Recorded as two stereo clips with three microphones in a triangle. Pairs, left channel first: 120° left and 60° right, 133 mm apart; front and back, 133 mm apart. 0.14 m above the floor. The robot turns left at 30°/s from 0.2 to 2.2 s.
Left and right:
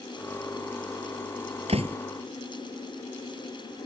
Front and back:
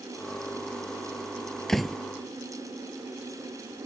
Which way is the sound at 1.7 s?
85° right.